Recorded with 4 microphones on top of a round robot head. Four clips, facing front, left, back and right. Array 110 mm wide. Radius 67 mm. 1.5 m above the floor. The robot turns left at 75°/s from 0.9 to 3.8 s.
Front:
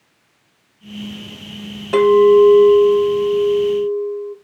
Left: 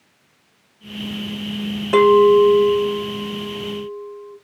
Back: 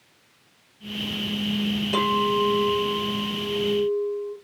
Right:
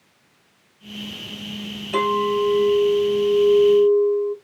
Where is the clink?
60° left, 2.5 m; by 4.3 s 80° right, 2.5 m.